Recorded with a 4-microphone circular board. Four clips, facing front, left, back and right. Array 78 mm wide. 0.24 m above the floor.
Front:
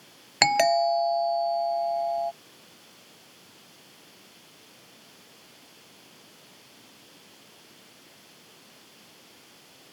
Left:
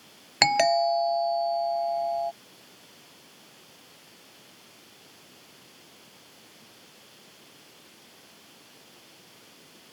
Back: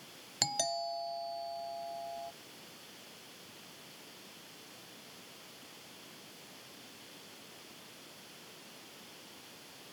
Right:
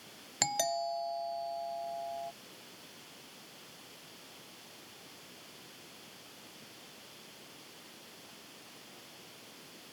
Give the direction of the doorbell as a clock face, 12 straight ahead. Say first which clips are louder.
Left 12 dB, front 16 dB; 11 o'clock.